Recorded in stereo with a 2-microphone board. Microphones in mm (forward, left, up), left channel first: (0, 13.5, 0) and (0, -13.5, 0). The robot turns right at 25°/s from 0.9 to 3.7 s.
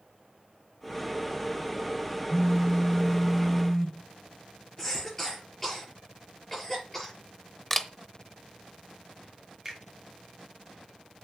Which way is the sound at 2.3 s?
65° left.